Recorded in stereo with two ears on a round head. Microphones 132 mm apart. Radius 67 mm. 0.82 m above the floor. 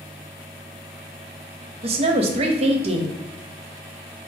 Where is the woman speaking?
40° right (ahead or behind), 0.6 m.